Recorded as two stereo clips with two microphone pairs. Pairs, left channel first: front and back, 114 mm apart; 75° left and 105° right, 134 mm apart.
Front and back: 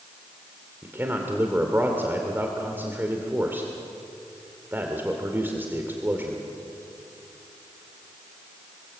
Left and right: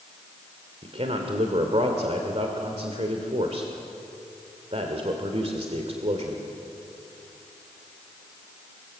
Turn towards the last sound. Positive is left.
turn(degrees=-115)